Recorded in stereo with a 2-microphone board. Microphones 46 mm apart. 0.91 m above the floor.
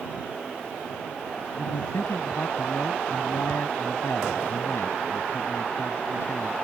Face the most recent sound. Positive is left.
turn(degrees=80)